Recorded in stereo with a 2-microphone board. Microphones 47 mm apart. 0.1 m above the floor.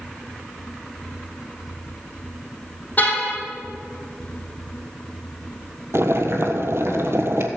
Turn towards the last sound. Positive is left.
turn(degrees=-65)  # may be behind; listen again after turning